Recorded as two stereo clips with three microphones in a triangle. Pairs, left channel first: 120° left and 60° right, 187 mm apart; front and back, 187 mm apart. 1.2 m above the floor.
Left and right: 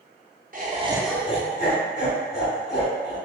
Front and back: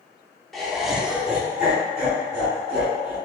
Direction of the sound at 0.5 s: 90° right.